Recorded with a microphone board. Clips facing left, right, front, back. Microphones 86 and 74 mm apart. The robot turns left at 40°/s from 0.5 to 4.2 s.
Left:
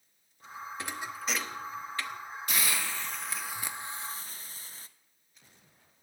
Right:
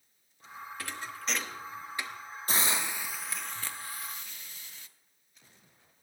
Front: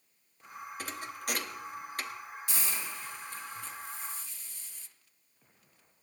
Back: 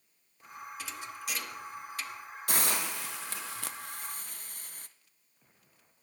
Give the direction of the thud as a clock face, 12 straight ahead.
11 o'clock.